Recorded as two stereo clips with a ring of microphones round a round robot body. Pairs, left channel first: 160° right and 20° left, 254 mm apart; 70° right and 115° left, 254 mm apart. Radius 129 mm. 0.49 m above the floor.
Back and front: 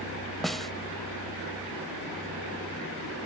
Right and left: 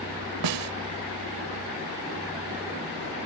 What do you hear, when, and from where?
0.4 s a snare drum: 115° left